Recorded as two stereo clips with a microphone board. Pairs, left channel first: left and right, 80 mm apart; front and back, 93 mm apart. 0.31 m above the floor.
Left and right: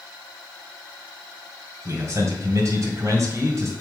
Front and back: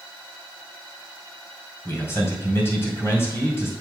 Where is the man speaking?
55° right, 2 m.